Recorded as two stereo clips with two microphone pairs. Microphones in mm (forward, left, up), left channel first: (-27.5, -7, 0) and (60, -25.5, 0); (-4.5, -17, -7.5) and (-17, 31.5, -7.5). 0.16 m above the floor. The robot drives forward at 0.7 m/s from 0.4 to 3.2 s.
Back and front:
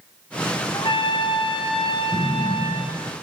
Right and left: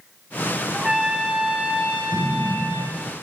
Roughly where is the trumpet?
Behind.